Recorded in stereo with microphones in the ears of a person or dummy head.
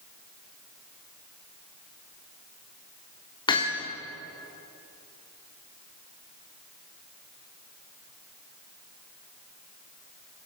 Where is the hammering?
20° left (ahead or behind), 3.5 m.